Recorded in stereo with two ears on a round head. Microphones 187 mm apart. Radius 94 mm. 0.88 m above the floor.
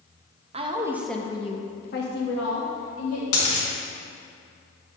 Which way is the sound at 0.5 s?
30° right (ahead or behind).